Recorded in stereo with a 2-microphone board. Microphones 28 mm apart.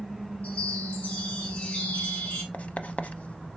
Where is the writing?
55° left (ahead or behind), 0.5 m.